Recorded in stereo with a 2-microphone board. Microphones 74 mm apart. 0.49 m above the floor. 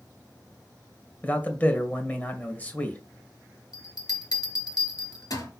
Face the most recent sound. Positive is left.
turn(degrees=60)  # may be behind; listen again after turning